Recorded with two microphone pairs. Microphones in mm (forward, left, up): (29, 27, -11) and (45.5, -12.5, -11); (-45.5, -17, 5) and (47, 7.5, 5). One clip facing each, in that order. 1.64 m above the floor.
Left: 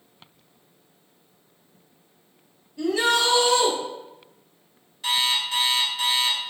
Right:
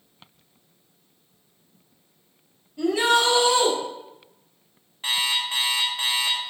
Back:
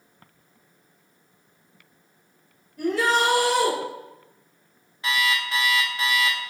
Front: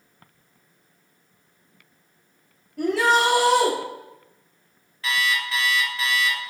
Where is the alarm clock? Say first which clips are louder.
Left 1 dB, even; 105° right, 1.6 m.